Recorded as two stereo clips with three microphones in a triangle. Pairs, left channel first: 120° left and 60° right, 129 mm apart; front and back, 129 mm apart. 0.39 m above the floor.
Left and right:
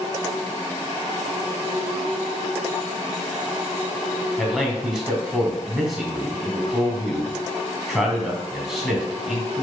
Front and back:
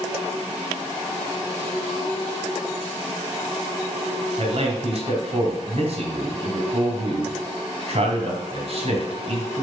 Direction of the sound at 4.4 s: 145° right.